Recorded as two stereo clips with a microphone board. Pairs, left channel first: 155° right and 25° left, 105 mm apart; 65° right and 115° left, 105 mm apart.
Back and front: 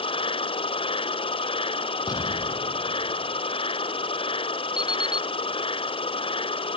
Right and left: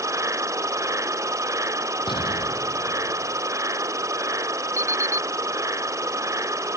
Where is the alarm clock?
50° left.